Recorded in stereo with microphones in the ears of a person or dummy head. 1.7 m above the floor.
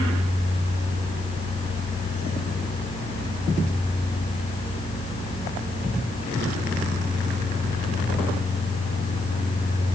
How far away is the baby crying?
No baby crying in this recording.